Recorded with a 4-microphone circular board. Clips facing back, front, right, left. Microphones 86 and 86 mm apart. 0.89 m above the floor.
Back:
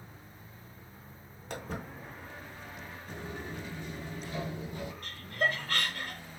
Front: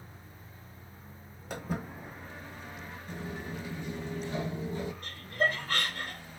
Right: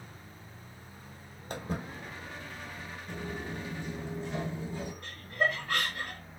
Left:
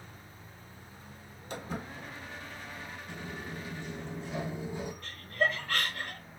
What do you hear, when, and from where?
1.5 s footsteps: 85° right, 1.2 m; by 3.0 s 10° right, 0.9 m
3.1 s footsteps: 90° right, 1.1 m; by 4.9 s 35° left, 1.2 m
5.0 s laughter: 20° right, 0.9 m